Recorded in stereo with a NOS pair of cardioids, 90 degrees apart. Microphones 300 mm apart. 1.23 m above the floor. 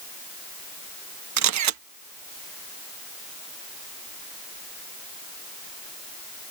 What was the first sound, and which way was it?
A camera shutter, 65° right.